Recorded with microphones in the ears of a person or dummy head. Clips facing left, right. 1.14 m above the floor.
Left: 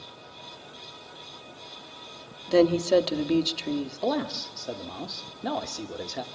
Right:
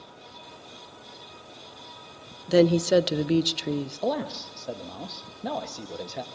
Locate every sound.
2.5 s a woman speaking: 10° right (ahead or behind), 0.7 m
4.0 s a man speaking: 5° left (ahead or behind), 1.0 m